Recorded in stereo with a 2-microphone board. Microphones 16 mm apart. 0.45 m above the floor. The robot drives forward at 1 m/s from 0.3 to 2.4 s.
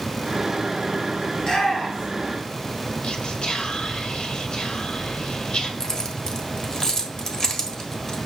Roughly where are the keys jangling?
Left.